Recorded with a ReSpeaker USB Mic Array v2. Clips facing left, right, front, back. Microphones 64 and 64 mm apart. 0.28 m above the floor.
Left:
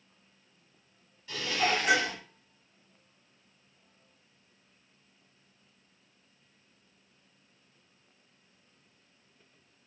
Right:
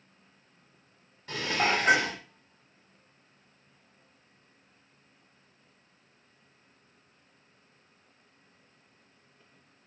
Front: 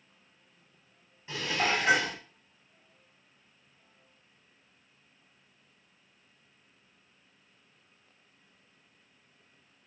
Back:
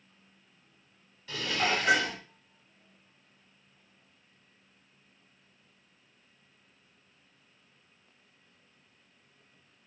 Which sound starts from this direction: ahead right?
Dishes clattering, at 1.3 s.